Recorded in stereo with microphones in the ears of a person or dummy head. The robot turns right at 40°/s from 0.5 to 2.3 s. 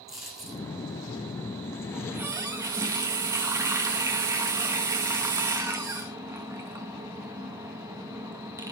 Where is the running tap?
5° right (ahead or behind), 1.9 m; by 8.7 s 15° right (ahead or behind), 1.9 m.